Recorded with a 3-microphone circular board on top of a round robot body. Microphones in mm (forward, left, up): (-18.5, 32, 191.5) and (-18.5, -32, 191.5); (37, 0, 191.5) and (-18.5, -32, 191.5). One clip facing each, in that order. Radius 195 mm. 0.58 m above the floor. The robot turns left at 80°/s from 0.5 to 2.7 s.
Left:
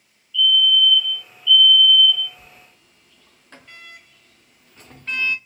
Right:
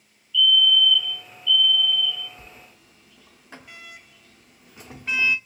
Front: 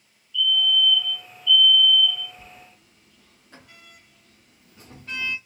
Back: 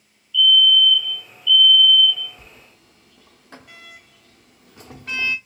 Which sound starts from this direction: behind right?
A sliding door, at 2.4 s.